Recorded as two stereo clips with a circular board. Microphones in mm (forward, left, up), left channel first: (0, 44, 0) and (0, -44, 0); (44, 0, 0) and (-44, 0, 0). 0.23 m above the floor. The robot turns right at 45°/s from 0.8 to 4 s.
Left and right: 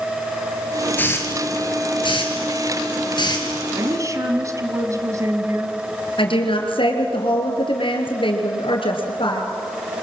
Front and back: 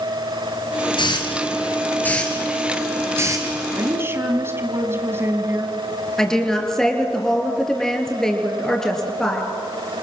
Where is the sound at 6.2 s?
85° left, 4 m.